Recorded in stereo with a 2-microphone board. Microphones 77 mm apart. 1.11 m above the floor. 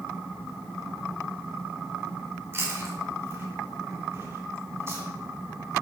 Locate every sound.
2.5 s chewing: 35° right (ahead or behind), 3.5 m